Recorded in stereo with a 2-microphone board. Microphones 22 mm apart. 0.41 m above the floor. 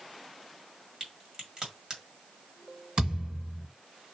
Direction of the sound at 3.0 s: 55° right (ahead or behind).